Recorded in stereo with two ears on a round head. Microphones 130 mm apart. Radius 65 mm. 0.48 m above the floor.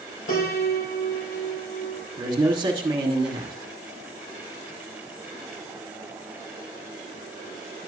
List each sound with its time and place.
0.3 s a piano: 60° left (ahead or behind), 3 m
2.2 s a man speaking: 30° right (ahead or behind), 1.3 m